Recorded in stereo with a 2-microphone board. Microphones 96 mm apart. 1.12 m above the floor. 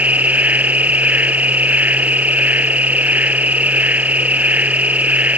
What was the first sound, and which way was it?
An insect, 15° right (ahead or behind).